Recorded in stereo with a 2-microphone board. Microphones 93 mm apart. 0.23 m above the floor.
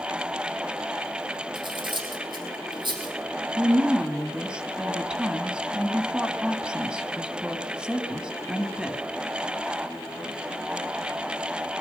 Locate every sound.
1.6 s cutlery clinking: 55° right (ahead or behind), 4 m
3.6 s a woman speaking: 10° right (ahead or behind), 2.0 m